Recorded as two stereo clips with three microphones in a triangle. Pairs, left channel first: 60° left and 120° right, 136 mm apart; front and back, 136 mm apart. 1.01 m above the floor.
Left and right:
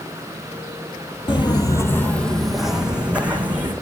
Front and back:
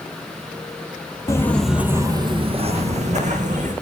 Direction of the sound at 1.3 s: 45° left.